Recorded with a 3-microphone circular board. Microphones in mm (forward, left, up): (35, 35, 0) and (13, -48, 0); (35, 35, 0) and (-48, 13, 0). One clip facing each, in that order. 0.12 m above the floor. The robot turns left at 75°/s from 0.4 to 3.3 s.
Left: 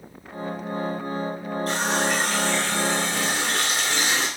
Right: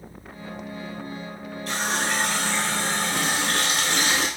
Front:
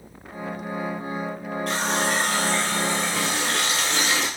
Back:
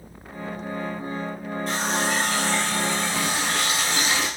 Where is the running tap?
30° left, 2 m; by 4.3 s 90° right, 2 m.